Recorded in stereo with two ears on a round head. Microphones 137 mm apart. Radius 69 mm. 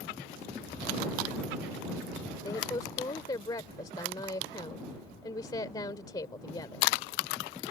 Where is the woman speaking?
25° left (ahead or behind).